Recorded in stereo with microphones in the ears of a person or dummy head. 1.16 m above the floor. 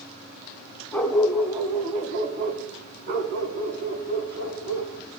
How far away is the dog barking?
About 1.8 m.